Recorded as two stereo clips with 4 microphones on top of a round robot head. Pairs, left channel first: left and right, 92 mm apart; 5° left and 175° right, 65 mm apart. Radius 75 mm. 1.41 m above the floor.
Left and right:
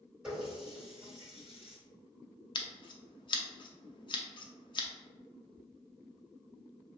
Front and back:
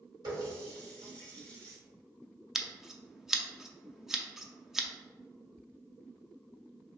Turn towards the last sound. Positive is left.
turn(degrees=100)